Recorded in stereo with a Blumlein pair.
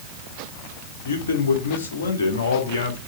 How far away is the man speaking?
About 2.5 m.